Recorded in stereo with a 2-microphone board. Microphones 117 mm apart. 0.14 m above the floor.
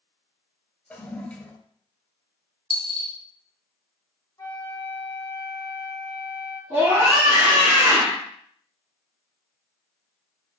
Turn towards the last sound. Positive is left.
turn(degrees=-25)  # may be behind; listen again after turning